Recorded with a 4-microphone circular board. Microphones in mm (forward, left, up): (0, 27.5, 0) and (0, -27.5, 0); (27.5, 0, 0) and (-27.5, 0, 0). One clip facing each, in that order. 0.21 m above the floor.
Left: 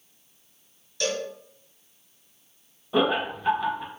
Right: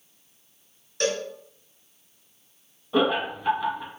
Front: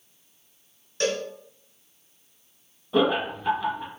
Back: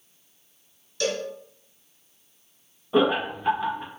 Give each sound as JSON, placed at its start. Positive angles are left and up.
{"t": 1.0, "sound": "a cowbell", "azimuth_deg": -45, "distance_m": 2.0}
{"t": 2.9, "sound": "laughter", "azimuth_deg": 155, "distance_m": 1.1}